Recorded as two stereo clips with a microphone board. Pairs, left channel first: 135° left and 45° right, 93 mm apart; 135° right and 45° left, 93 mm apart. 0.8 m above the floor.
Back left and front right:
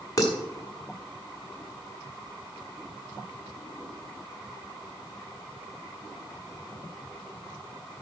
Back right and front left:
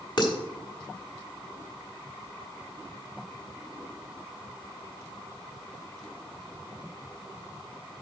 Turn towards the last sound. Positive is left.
turn(degrees=-175)